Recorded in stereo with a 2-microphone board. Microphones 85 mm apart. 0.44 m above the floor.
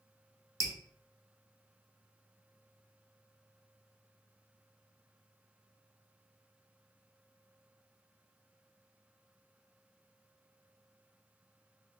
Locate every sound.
0.6 s dripping: 40° right (ahead or behind), 0.7 m